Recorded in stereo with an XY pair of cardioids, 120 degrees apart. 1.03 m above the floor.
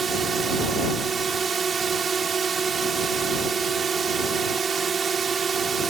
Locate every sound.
0.0 s a drone: 40° right